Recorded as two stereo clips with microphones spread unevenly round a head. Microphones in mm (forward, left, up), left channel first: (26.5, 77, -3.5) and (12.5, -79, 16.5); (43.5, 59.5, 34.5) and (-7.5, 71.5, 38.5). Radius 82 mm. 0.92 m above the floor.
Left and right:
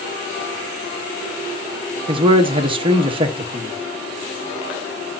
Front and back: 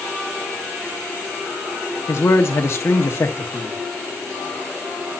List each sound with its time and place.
2.1 s a man speaking: 35° right, 1.3 m